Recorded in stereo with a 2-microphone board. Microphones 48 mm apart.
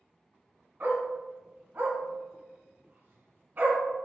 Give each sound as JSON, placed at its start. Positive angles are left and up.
{"t": 0.8, "sound": "a dog barking", "side_deg": -45, "distance_m": 2.0}